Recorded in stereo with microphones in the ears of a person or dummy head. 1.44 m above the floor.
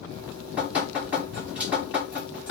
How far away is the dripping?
About 2.0 m.